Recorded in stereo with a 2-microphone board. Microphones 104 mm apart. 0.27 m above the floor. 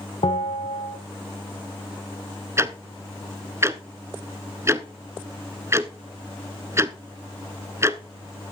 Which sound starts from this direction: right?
Ticking, at 2.6 s.